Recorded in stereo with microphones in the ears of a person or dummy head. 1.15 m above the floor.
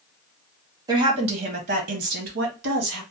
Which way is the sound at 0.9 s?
25° right (ahead or behind).